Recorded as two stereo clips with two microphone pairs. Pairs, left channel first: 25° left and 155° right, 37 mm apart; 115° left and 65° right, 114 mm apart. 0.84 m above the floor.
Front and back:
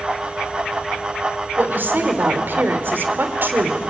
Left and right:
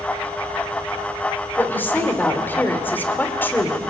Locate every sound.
1.6 s a woman speaking: 175° right, 2.5 m